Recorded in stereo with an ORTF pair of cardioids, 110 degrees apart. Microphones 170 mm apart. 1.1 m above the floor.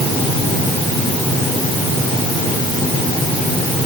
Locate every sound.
Only background noise.